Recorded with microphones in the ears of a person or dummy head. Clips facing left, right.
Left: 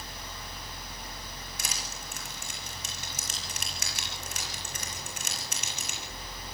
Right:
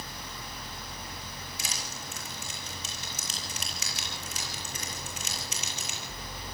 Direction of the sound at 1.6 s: 55° left (ahead or behind).